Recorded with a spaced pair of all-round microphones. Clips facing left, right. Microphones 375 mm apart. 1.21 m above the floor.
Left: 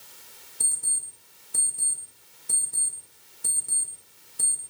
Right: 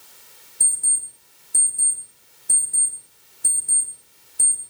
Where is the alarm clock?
10° left (ahead or behind), 0.5 m.